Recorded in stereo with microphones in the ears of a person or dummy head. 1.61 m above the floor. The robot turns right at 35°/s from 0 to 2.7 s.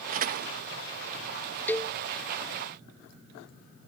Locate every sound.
0.1 s a door slam: 35° right (ahead or behind); by 0.6 s 50° right (ahead or behind)
1.7 s a cowbell: 5° left (ahead or behind); by 1.9 s 15° left (ahead or behind)